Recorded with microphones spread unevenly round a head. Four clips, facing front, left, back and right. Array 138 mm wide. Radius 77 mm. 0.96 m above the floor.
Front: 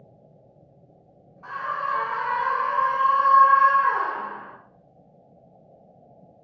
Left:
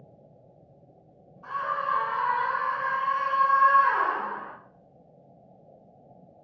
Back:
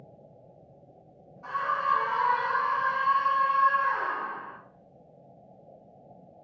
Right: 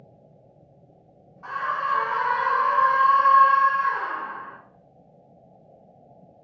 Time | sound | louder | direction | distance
1.4 | a scream | right 2 dB, back 1 dB | 80° right | 2.5 m